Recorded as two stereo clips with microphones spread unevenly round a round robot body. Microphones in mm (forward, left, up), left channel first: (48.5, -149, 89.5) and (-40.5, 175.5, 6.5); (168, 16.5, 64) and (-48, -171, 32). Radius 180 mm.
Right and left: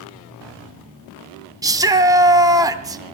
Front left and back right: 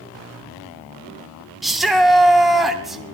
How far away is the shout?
About 0.8 m.